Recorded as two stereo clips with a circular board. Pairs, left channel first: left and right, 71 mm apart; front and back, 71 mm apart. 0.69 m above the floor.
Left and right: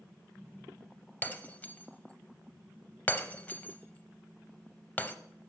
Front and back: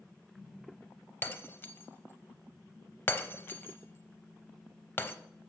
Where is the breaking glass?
40° left, 0.6 m.